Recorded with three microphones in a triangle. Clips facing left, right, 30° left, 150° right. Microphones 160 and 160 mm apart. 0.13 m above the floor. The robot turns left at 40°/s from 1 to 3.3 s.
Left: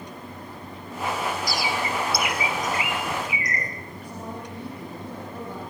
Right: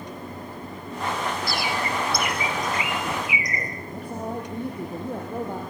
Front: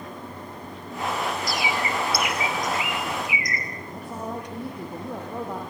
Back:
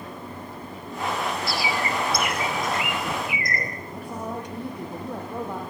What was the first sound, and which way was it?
A bird, 95° right.